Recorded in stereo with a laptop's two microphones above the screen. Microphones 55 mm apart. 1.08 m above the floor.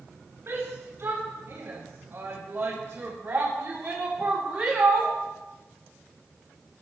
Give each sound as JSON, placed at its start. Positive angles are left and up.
{"t": 0.5, "sound": "a shout", "side_deg": -45, "distance_m": 4.5}